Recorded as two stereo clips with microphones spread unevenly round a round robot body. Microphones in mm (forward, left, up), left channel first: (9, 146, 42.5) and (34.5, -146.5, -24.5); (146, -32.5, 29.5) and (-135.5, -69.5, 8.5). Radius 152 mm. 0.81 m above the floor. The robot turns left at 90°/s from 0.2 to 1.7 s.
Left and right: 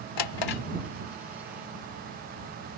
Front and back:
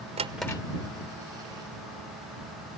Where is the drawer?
115° left; by 0.6 s 80° left.